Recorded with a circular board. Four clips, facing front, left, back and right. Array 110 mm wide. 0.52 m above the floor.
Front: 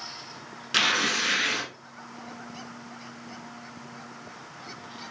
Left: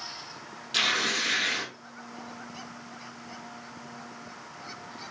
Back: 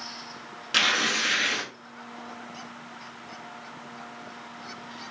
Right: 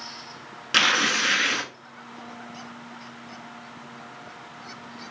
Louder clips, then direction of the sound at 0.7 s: Right 7 dB, even; 90° right.